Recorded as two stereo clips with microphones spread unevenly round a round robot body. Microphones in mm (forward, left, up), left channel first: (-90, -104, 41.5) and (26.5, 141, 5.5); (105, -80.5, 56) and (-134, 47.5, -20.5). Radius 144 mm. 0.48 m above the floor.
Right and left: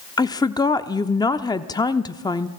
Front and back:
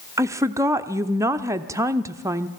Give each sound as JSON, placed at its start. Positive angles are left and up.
{"t": 0.2, "sound": "a woman speaking", "azimuth_deg": 170, "distance_m": 0.8}